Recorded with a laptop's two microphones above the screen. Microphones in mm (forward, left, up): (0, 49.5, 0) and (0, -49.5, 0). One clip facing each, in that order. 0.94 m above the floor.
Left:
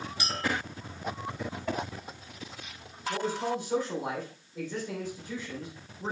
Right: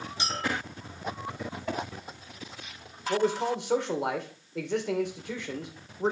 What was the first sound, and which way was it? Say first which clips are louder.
A clink: right 1 dB; 25° right (ahead or behind).